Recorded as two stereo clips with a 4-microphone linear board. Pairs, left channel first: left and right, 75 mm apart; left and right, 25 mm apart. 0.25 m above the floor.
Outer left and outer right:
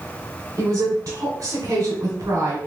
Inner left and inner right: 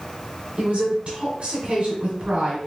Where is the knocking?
No knocking in this recording.